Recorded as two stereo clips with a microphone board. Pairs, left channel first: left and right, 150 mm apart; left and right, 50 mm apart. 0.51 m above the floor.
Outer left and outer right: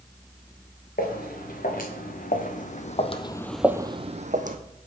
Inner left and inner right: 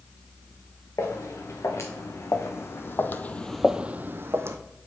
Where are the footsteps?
75° left (ahead or behind), 2.5 m; by 4.6 s 60° right (ahead or behind), 1.0 m.